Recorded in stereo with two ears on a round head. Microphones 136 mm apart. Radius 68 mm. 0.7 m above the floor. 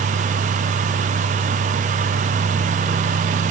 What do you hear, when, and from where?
Only background noise.